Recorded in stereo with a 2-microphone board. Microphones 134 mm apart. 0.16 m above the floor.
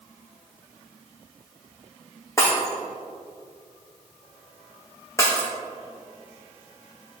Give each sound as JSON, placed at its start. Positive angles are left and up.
{"t": 2.4, "sound": "breaking glass", "side_deg": 20, "distance_m": 3.0}